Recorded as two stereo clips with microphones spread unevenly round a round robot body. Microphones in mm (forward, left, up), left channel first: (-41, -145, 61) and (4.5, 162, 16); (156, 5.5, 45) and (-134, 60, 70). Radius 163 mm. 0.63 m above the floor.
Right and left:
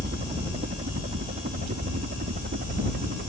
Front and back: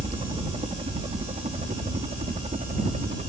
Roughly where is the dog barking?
No dog barking in this recording.